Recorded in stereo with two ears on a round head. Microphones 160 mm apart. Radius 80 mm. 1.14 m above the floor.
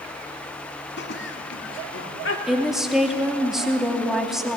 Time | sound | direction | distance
1.0 | laughter | 70° left (ahead or behind) | 2 m
2.5 | a woman speaking | centre (ahead or behind) | 2.5 m